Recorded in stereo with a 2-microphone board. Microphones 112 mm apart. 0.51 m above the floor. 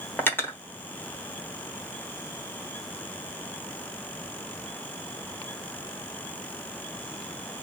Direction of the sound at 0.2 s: 20° left (ahead or behind).